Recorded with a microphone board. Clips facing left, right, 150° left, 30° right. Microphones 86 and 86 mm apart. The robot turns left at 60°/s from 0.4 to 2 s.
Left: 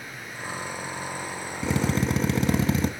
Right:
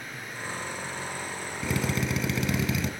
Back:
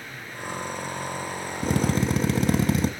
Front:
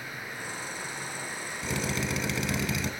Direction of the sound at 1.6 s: 145° left.